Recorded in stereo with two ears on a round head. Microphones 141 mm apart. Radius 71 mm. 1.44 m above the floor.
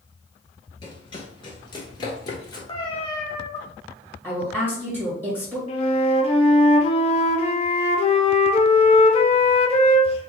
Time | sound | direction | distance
0.8 | running footsteps | 30° left (ahead or behind) | 1.6 m
2.7 | a cat meowing | 30° left (ahead or behind) | 1.0 m
4.2 | a woman speaking | 10° right (ahead or behind) | 1.7 m
5.7 | a flute | 40° left (ahead or behind) | 0.6 m